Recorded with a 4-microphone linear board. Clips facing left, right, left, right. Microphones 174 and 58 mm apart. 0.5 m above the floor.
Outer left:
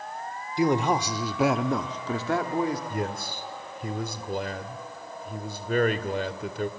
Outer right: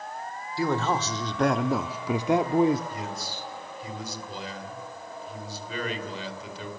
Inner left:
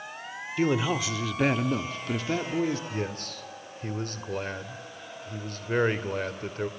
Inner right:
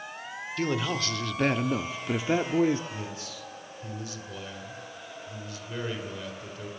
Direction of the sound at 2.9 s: 55° left (ahead or behind).